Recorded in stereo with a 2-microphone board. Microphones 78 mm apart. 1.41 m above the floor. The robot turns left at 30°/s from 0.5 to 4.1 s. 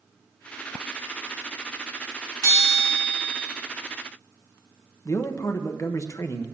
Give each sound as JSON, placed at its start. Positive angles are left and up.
{"t": 2.4, "sound": "a bell", "azimuth_deg": -50, "distance_m": 3.0}
{"t": 5.0, "sound": "a man speaking", "side_deg": 40, "distance_m": 1.0}